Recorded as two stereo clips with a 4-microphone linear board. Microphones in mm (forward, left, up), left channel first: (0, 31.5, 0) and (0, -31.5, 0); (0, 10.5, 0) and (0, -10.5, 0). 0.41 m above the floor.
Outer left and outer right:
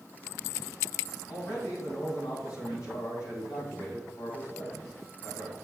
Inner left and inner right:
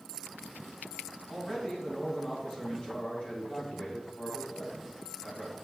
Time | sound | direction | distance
1.3 | a man speaking | 70° left (ahead or behind) | 3 m